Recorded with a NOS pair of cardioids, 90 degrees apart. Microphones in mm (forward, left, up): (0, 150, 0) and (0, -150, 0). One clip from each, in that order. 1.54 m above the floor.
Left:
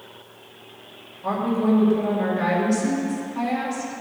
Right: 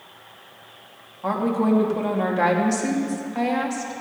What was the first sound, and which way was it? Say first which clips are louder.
A woman speaking: right 1 dB; 50° right.